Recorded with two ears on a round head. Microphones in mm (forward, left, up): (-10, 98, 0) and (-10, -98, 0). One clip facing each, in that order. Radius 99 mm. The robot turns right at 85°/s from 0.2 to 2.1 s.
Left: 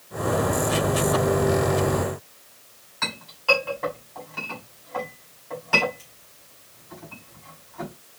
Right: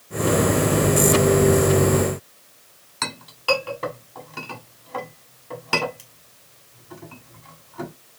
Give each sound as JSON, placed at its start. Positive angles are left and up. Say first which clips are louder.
{"t": 3.0, "sound": "a clink", "louder": "right 2 dB", "side_deg": -50, "distance_m": 2.0}